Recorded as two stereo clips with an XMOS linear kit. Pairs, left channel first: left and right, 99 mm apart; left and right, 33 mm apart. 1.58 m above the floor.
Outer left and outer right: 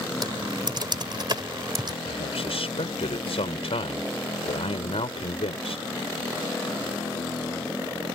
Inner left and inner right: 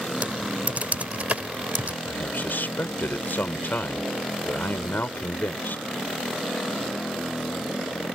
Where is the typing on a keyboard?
50° right (ahead or behind).